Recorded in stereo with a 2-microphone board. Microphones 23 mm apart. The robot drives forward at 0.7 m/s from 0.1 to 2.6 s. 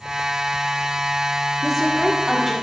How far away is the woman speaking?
About 1.6 m.